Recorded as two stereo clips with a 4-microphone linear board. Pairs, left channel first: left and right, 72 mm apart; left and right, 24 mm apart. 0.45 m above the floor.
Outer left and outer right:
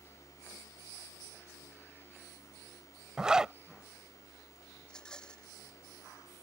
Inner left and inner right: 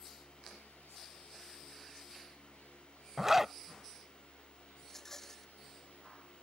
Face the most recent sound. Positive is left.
turn(degrees=10)  # may be behind; listen again after turning